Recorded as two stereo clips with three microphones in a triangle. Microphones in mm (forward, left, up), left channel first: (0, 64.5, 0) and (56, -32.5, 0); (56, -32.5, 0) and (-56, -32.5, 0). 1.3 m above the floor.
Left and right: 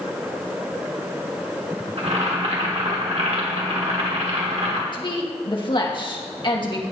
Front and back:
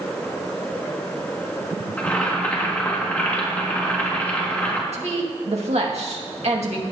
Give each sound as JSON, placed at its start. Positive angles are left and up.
{"t": 2.0, "sound": "boiling", "azimuth_deg": -75, "distance_m": 2.0}
{"t": 4.9, "sound": "a woman speaking", "azimuth_deg": 160, "distance_m": 2.0}